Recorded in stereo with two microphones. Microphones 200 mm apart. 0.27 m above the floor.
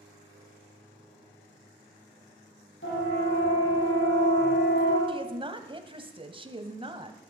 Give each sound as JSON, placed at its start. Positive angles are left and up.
{"t": 2.8, "sound": "a siren", "side_deg": 75, "distance_m": 8.0}
{"t": 5.1, "sound": "a woman speaking", "side_deg": -25, "distance_m": 1.3}